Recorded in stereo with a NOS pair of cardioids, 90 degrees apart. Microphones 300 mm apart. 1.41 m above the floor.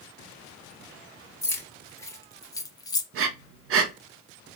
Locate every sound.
1.4 s keys jangling: 10° left, 1.3 m; by 3.0 s 15° left, 0.5 m
3.1 s breathing: 50° right, 0.5 m